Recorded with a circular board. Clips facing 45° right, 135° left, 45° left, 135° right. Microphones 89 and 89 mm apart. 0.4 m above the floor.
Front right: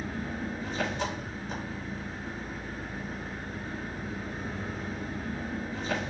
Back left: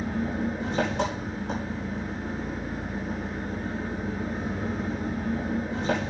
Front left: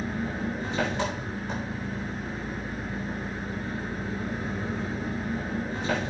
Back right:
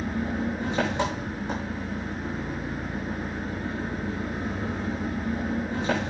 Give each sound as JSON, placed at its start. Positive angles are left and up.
{"t": 0.0, "sound": "an engine running", "azimuth_deg": 155, "distance_m": 6.5}